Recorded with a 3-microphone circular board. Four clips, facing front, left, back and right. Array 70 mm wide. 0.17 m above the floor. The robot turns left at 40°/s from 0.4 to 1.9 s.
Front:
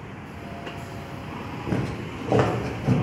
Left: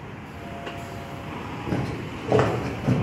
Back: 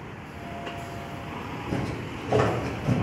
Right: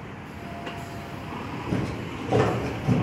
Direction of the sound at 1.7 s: 40° left.